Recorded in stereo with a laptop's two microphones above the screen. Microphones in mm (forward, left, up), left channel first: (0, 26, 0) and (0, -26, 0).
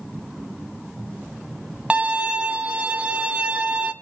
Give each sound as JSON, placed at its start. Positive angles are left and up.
{"t": 1.9, "sound": "a violin", "side_deg": -20, "distance_m": 0.7}